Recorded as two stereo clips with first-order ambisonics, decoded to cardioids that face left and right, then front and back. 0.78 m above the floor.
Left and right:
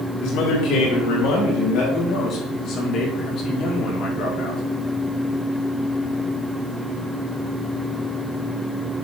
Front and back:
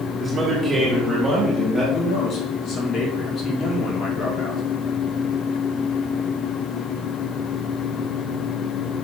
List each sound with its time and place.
0.2 s a man speaking: 110° left, 1.8 m; by 1.8 s 100° left, 3 m
1.9 s a man speaking: 50° left, 2 m